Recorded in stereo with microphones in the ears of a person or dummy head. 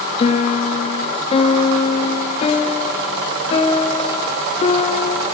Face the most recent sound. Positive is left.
turn(degrees=30)  # may be behind; listen again after turning